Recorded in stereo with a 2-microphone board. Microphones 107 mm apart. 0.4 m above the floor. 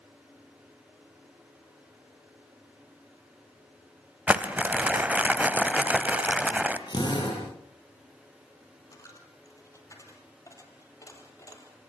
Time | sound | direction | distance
4.3 | crumpling | 15° right (ahead or behind) | 1.2 m
6.9 | a drill | 45° left (ahead or behind) | 10 m
8.9 | a dropped coin | 30° left (ahead or behind) | 3 m